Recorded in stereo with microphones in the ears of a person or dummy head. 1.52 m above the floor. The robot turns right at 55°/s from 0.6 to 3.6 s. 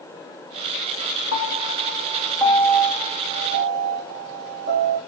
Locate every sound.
1.3 s a piano: 75° left (ahead or behind), 3.5 m; by 5.0 s 50° right (ahead or behind), 3.5 m